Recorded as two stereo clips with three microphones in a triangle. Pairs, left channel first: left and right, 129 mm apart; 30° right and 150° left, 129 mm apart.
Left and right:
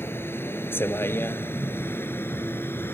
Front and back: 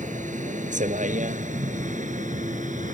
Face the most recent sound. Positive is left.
turn(degrees=160)